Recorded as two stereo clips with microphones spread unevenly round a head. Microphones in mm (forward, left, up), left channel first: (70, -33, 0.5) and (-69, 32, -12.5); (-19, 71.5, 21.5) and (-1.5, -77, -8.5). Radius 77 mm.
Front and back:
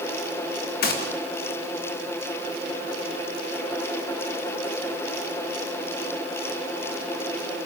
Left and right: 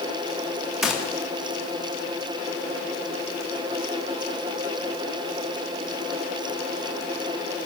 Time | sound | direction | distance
0.8 | a gunshot | 5° left | 3 m